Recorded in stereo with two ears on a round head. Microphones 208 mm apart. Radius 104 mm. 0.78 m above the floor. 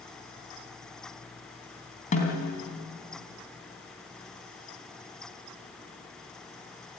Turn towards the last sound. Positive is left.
turn(degrees=30)  # may be behind; listen again after turning